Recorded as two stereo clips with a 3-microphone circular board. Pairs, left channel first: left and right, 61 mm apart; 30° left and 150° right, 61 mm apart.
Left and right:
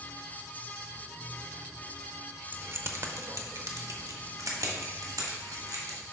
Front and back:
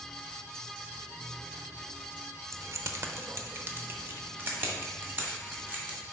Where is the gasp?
No gasp in this recording.